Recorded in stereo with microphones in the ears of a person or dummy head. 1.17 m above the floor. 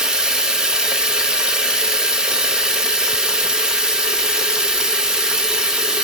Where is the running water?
5° right (ahead or behind), 0.8 m.